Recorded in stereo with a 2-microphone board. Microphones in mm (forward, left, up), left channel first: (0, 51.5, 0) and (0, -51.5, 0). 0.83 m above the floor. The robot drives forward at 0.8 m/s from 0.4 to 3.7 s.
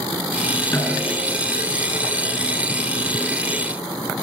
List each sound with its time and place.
0.7 s a snare drum: 25° left (ahead or behind), 5.5 m; by 1.3 s 20° left (ahead or behind), 6 m